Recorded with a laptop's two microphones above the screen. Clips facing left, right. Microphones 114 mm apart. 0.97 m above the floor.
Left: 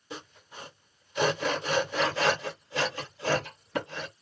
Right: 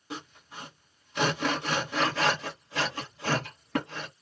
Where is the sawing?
75° right (ahead or behind), 2.5 m.